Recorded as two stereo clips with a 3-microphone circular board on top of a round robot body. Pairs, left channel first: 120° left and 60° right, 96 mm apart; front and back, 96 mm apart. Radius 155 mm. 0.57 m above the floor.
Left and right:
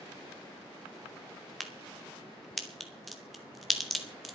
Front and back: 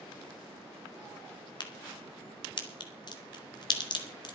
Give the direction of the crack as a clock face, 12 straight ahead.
11 o'clock.